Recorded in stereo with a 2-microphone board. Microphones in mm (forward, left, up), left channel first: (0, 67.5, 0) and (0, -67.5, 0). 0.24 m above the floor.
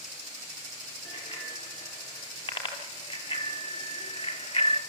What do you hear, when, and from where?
1.1 s a bicycle bell: 40° left (ahead or behind), 5.5 m